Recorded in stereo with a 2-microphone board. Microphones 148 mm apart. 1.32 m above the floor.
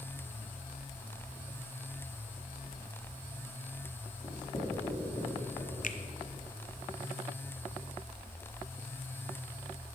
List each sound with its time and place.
4.2 s writing: 40° left (ahead or behind), 3 m
5.8 s a finger snap: 65° left (ahead or behind), 0.6 m